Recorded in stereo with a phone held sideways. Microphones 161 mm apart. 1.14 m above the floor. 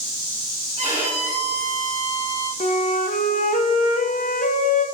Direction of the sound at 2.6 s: 55° left (ahead or behind).